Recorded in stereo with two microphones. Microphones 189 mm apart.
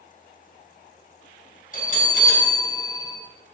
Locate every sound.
1.7 s a bell: 45° left (ahead or behind), 3 m